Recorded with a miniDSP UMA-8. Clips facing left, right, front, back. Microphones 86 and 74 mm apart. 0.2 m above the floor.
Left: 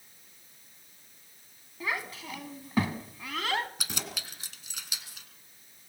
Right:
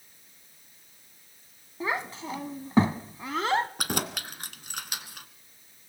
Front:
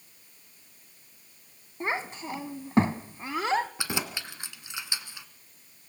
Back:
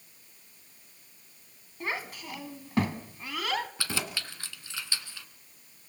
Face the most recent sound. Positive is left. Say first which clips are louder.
# right 8 dB, front 2 dB
turn(degrees=-70)